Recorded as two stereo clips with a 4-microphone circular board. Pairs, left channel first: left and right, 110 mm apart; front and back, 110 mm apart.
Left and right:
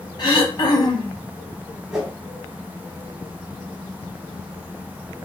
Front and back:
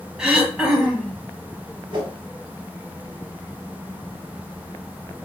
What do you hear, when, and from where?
0.2 s throat clearing: 100° left, 0.7 m
1.9 s a whoosh: 175° right, 0.9 m